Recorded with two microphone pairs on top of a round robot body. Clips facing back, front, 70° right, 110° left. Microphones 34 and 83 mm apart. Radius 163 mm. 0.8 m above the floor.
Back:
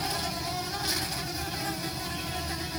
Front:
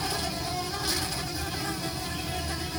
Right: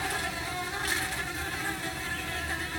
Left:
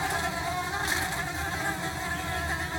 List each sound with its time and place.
0.0 s an insect: 100° left, 1.0 m